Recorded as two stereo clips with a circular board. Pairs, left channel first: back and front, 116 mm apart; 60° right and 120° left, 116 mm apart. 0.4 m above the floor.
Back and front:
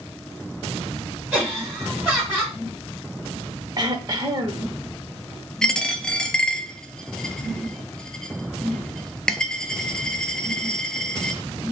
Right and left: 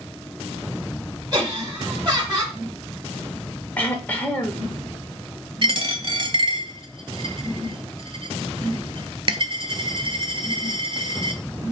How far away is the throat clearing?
About 0.7 m.